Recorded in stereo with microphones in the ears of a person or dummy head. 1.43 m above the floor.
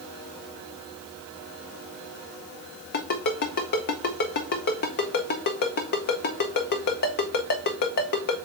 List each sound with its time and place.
2.9 s a ringtone: 45° left (ahead or behind), 0.6 m